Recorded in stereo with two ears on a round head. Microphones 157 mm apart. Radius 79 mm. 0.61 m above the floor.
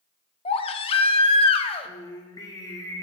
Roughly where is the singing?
Left.